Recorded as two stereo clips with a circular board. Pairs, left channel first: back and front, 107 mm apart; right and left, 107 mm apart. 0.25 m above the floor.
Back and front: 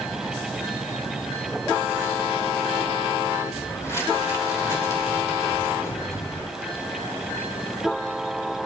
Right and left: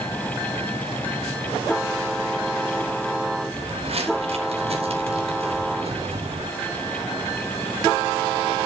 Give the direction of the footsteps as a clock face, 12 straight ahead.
8 o'clock.